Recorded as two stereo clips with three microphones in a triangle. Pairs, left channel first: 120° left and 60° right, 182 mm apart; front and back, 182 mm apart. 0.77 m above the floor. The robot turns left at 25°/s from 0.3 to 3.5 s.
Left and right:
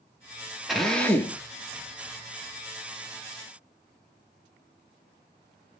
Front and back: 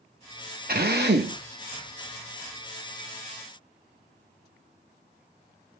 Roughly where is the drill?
Behind right.